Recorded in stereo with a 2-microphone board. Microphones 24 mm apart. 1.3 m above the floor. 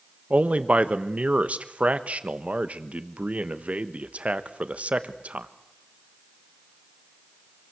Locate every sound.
0.3 s a man speaking: 80° right, 1.3 m